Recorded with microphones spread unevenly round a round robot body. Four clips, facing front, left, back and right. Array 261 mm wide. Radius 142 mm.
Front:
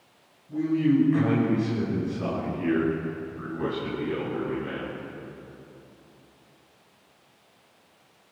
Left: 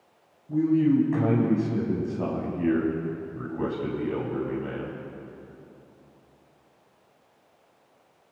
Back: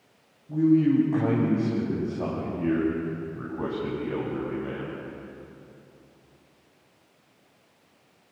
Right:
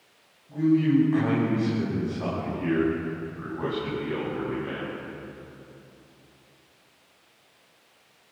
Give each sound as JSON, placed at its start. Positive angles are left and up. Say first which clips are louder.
{"t": 0.5, "sound": "a man speaking", "louder": "even, back 3 dB", "azimuth_deg": 125, "distance_m": 6.0}